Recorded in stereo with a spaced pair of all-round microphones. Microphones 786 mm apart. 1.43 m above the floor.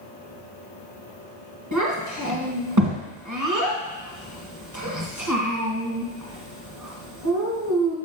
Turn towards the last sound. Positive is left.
turn(degrees=-20)  # may be behind; listen again after turning